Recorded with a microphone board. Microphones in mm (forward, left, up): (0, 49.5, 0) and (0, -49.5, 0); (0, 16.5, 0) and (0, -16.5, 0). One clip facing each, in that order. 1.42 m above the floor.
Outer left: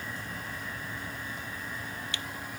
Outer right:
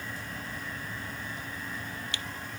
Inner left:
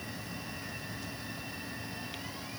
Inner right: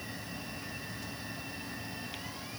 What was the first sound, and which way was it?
Only background noise.